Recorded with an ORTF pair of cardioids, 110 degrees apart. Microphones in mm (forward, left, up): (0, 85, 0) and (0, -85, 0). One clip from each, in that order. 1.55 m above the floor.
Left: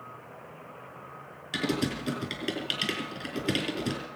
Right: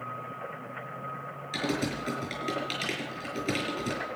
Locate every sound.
1.5 s typing on a keyboard: 35° left, 6 m